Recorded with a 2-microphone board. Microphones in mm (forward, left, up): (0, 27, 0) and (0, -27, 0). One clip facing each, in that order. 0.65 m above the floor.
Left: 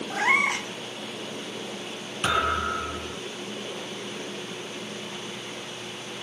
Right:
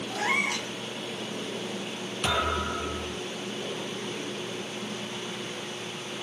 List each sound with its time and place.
0.1 s a cat meowing: 35° left (ahead or behind), 0.6 m
2.2 s a thud: 30° left (ahead or behind), 2.5 m